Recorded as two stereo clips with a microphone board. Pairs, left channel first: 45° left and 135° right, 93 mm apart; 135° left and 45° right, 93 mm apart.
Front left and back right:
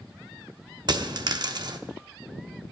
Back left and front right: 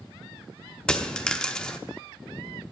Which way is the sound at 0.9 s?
145° right.